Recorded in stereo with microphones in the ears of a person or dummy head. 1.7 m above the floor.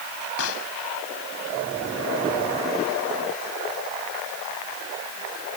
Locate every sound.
0.4 s a pop: 85° left